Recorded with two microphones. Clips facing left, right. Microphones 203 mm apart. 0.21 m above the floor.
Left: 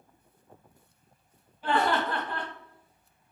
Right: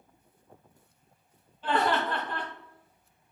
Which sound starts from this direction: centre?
Laughter, at 1.6 s.